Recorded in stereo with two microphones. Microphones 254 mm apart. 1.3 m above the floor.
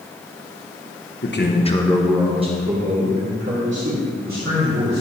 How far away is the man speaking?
About 1.2 m.